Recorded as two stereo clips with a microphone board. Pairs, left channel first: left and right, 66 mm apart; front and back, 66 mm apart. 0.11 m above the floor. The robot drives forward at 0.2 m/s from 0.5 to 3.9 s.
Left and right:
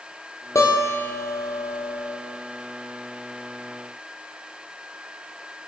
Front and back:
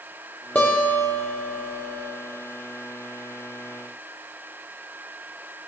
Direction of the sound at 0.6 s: 65° left.